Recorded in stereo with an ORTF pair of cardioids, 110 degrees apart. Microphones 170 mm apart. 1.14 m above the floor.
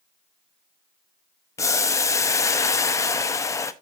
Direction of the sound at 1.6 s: 20° left.